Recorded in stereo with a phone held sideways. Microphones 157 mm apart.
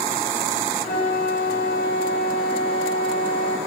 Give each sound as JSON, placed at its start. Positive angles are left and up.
{"t": 0.8, "sound": "a flute", "side_deg": 80, "distance_m": 7.0}